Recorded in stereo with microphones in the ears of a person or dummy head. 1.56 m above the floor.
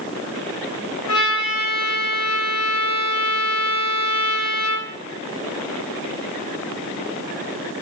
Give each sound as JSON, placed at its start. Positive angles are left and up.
{"t": 1.1, "sound": "a trumpet", "side_deg": 65, "distance_m": 0.8}